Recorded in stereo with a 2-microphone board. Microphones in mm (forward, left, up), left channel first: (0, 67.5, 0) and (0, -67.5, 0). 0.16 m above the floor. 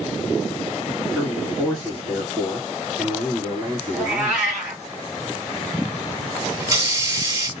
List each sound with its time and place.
1.1 s a man speaking: 5° right (ahead or behind), 3 m
3.9 s a cat meowing: 5° right (ahead or behind), 2.5 m
6.6 s a hiss: 25° right (ahead or behind), 0.9 m